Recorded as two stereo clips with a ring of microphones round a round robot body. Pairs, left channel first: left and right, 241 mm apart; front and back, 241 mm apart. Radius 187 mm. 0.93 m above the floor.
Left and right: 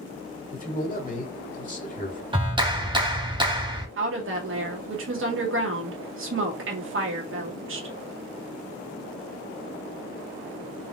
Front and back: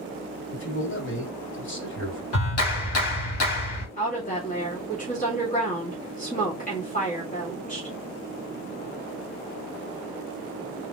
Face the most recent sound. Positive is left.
turn(degrees=-60)